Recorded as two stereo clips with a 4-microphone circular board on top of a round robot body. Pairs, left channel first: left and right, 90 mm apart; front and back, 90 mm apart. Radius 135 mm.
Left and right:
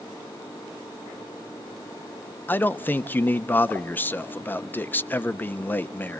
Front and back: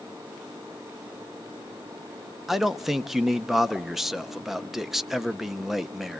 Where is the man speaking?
100° left, 0.7 m.